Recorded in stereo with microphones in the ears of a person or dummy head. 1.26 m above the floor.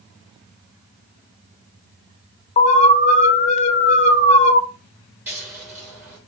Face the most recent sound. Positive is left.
turn(degrees=-15)  # may be behind; listen again after turning